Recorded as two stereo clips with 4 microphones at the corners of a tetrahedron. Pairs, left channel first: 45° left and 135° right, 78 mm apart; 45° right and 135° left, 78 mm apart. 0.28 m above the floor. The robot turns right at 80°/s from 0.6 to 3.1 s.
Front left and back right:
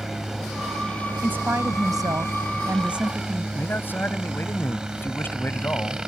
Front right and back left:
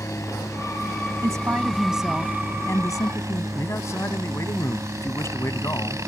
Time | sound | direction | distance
0.0 | a helicopter | 50° right | ?
1.2 | a woman speaking | 160° left | ?
3.5 | a man speaking | 10° right | ?